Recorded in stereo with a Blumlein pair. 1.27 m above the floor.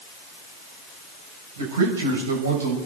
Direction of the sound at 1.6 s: 65° right.